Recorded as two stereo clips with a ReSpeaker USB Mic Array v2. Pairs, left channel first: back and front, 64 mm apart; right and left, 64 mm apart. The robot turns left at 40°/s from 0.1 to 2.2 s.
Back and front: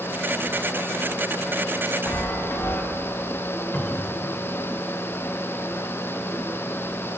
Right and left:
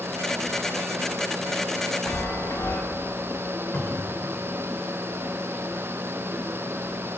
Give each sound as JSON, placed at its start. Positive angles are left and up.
{"t": 2.1, "sound": "a chime", "azimuth_deg": -130, "distance_m": 1.2}
{"t": 3.7, "sound": "a cupboard door", "azimuth_deg": -130, "distance_m": 1.9}